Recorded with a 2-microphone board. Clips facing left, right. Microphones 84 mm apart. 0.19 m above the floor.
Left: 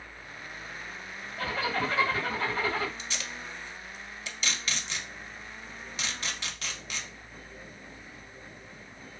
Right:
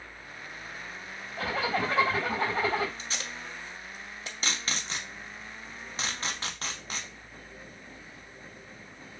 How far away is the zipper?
About 3 m.